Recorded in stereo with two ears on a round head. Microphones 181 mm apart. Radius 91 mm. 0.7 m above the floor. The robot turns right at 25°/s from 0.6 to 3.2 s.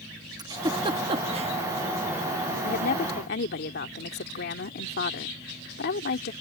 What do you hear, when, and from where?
0.4 s a giggle: 20° right (ahead or behind); by 1.5 s 30° right (ahead or behind)
2.6 s a woman speaking: 45° left (ahead or behind); by 6.3 s 55° left (ahead or behind)